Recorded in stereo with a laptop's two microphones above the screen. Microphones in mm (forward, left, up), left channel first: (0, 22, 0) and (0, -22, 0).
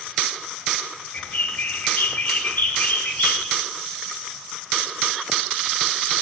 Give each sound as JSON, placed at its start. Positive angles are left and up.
{"t": 1.1, "sound": "a bird", "side_deg": 30, "distance_m": 1.1}